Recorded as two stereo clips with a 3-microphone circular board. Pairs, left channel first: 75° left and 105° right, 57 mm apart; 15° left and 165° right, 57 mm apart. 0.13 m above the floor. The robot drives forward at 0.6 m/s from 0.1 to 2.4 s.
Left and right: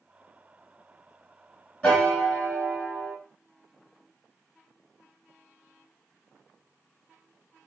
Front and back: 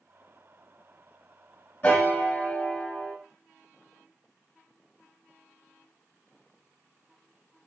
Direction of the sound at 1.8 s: 5° left.